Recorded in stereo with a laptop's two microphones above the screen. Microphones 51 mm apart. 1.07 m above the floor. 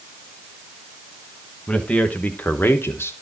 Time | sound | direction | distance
1.7 | a man speaking | 25° left (ahead or behind) | 1.1 m